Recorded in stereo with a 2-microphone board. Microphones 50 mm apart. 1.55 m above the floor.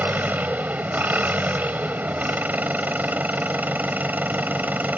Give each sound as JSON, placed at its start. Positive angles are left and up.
{"t": 0.0, "sound": "an engine running", "side_deg": -35}